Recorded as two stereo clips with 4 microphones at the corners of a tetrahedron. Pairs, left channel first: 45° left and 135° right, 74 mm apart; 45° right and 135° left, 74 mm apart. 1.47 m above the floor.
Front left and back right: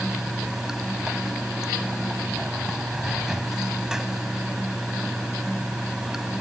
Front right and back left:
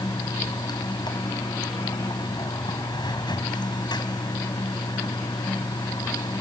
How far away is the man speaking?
No man speaking in this recording.